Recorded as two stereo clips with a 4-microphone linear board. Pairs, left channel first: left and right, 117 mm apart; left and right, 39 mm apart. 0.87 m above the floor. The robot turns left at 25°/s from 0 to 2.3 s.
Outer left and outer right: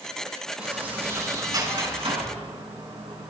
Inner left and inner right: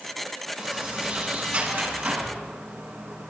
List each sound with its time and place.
0.6 s a sliding door: 10° right, 7 m; by 3.3 s 50° right, 7 m